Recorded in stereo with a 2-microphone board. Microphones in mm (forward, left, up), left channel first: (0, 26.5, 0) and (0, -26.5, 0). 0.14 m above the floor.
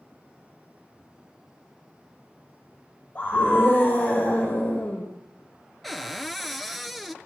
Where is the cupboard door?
Centre (ahead or behind), 0.9 m.